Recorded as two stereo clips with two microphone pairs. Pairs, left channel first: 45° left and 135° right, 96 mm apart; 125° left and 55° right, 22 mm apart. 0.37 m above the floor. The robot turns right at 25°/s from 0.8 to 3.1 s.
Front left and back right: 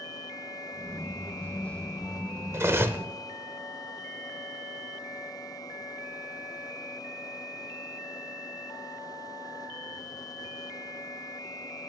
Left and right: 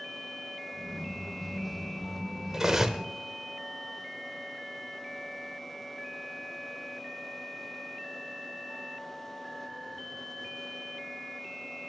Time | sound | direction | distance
2.5 | cutlery clinking | 100° right | 0.6 m